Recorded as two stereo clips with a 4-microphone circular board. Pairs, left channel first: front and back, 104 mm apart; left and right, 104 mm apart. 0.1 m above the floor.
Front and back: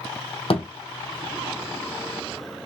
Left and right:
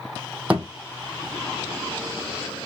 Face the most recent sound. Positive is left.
turn(degrees=-15)